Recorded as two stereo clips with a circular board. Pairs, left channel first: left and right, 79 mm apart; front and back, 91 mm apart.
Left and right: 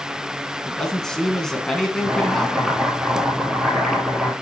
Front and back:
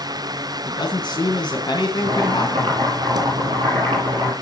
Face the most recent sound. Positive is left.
turn(degrees=-175)